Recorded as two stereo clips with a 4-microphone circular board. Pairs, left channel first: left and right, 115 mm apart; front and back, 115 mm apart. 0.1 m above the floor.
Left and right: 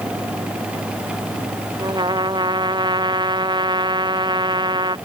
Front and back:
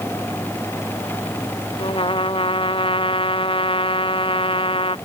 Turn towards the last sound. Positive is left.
turn(degrees=-40)